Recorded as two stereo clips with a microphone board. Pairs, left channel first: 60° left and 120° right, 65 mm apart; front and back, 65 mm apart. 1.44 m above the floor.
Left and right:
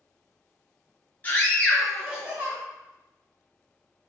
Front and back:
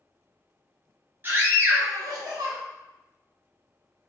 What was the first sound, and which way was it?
A scream, 125° left.